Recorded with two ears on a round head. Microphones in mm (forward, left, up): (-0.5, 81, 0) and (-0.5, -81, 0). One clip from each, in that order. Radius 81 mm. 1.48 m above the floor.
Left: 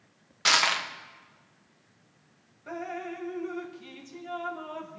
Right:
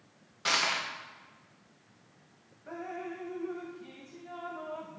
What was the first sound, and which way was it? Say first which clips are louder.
Crushing: left 6 dB; 40° left (ahead or behind).